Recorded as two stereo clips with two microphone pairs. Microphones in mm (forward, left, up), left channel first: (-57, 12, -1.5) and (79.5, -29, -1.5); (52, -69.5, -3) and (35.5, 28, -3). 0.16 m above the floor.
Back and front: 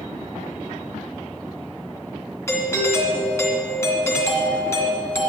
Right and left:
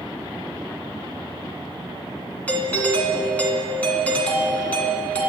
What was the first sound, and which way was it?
A doorbell, 140° right.